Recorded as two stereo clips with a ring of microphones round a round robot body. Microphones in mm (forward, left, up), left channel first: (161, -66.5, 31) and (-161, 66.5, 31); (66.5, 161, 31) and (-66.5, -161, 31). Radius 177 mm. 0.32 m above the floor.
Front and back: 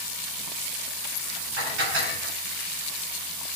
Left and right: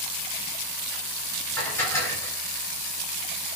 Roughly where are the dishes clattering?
Behind left.